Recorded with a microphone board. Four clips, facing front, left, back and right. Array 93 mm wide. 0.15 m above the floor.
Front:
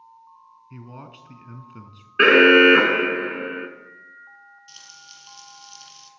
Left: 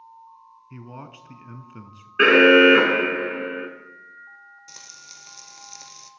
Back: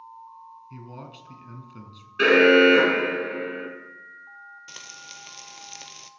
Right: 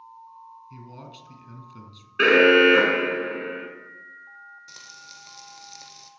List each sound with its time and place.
0.7 s a man speaking: 70° left, 1.2 m
2.2 s an alarm: 25° left, 2 m
4.7 s frying: 175° left, 0.8 m